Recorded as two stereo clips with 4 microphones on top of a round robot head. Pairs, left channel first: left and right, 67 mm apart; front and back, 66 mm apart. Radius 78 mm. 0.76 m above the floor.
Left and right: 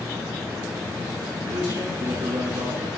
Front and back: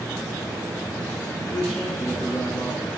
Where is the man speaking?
75° right, 9.5 m; by 2.9 s 80° right, 9 m.